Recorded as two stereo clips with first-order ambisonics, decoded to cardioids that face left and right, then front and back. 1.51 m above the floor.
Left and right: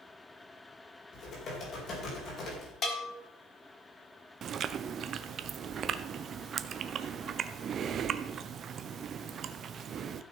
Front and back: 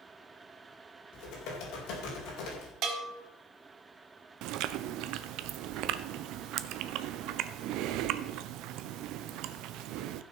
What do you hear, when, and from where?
1.1 s typing on a keyboard: 35° left, 4.5 m
2.8 s a bell: 145° left, 2.0 m
4.4 s chewing: 150° right, 0.6 m